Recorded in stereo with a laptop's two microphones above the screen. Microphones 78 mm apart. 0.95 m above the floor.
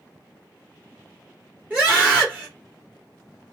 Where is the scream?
20° right (ahead or behind), 2.5 m.